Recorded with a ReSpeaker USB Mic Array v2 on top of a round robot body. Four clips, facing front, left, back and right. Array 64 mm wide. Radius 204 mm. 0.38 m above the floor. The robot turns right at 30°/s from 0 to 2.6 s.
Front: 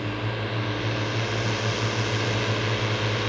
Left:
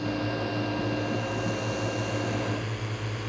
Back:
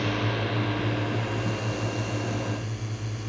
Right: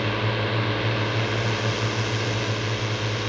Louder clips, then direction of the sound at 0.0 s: Right 4 dB, back 2 dB; 105° right.